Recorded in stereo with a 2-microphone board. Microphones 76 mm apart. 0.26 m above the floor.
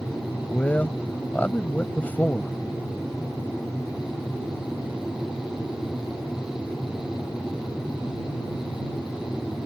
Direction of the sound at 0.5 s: 25° left (ahead or behind).